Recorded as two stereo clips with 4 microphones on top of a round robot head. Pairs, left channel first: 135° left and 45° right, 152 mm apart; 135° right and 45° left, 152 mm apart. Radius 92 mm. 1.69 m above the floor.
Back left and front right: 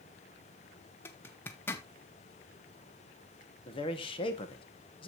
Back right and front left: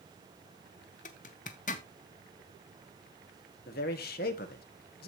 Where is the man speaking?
165° right, 1.4 m.